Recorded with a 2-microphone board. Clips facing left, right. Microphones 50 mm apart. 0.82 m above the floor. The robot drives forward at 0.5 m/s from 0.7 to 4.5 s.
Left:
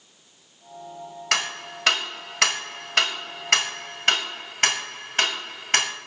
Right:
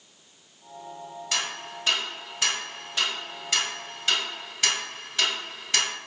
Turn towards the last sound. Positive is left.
turn(degrees=50)  # may be behind; listen again after turning